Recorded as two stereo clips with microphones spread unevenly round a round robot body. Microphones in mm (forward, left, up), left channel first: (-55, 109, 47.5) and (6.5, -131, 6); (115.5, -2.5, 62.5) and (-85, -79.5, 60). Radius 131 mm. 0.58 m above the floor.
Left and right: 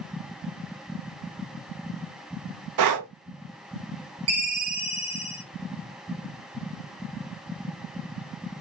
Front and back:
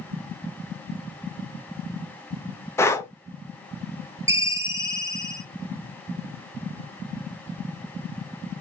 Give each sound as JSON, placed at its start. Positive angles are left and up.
{"t": 2.8, "sound": "breathing", "azimuth_deg": -60, "distance_m": 0.5}
{"t": 4.3, "sound": "a ringtone", "azimuth_deg": -85, "distance_m": 1.2}